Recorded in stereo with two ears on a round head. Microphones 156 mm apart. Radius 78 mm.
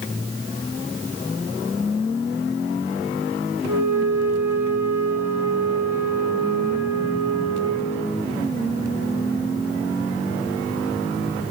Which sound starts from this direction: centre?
A flute, at 3.6 s.